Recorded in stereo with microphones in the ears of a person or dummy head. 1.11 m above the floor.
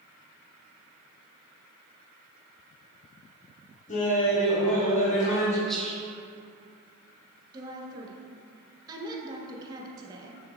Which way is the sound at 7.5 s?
20° right (ahead or behind).